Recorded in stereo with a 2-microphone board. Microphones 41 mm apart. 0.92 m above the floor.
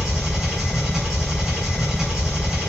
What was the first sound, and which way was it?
An engine running, 10° right (ahead or behind).